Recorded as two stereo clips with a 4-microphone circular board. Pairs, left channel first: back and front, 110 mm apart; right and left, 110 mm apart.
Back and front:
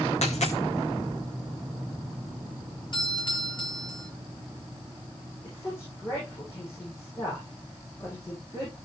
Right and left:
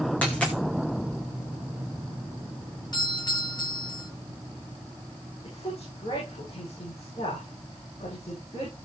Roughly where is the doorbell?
Behind right.